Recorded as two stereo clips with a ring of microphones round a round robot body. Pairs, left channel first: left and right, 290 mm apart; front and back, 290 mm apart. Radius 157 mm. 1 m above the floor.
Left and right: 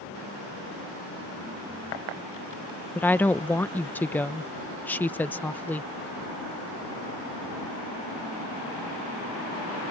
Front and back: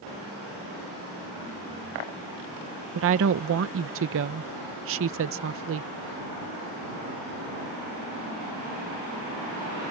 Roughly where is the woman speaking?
Behind.